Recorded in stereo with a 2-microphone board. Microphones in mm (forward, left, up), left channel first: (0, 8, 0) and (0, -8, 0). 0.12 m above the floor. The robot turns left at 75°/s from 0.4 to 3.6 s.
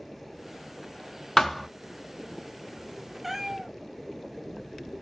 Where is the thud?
30° left (ahead or behind), 0.5 m; by 1.7 s 5° left (ahead or behind), 0.5 m.